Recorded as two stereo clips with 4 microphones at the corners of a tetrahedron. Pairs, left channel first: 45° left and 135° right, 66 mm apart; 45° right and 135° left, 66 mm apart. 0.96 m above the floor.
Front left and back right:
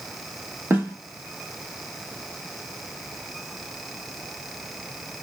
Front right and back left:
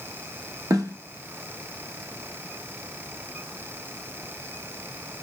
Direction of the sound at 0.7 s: 165° left.